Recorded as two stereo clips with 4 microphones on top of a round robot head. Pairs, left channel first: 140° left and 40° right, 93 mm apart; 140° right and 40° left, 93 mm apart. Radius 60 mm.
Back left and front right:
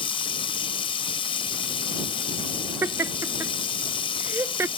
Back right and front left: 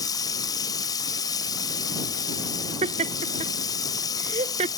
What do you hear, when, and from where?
0.0 s running water: 170° left
2.8 s laughter: 25° left